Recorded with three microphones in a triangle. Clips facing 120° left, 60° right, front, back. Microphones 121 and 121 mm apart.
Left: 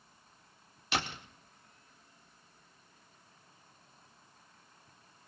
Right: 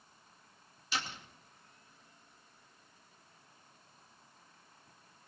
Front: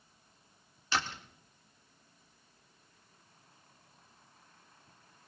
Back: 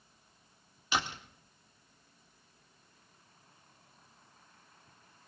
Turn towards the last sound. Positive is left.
turn(degrees=105)